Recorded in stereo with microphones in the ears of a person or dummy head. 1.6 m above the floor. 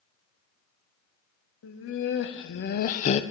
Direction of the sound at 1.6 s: 75° left (ahead or behind).